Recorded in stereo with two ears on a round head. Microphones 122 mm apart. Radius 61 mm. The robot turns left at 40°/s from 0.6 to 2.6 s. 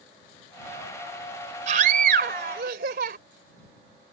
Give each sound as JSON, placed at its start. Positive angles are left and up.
{"t": 1.7, "sound": "a scream", "azimuth_deg": -60}